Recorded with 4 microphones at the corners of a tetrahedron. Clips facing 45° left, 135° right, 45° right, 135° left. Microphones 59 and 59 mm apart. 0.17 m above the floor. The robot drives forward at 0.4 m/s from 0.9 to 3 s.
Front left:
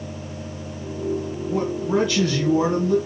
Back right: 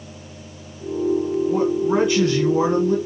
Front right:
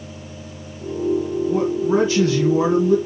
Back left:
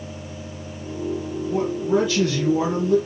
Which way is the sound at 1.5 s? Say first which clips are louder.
Back right 1 dB, front right 1 dB; 75° right.